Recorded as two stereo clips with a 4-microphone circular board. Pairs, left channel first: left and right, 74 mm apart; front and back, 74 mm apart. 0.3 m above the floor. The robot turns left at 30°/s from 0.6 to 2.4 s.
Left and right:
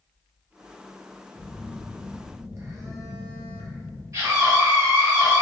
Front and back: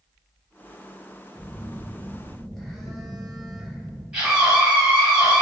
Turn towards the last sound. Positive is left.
turn(degrees=-100)